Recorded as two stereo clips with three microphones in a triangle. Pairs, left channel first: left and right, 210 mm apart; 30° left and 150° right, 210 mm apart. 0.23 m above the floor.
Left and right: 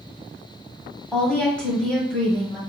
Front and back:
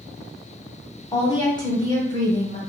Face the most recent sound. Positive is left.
turn(degrees=15)